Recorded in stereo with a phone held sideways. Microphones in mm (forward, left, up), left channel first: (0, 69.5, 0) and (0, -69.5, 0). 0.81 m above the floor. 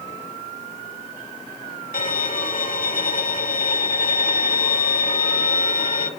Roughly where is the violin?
Left.